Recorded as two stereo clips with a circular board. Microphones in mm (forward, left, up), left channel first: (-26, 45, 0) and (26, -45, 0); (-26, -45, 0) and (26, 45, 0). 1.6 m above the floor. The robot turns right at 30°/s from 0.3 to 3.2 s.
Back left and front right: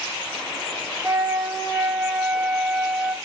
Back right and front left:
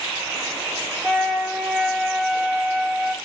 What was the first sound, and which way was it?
A flute, 40° right.